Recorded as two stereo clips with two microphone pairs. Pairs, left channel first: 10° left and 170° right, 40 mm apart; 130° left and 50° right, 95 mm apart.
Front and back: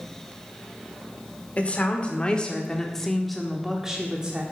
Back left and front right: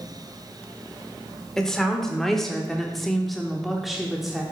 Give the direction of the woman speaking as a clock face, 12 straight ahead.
10 o'clock.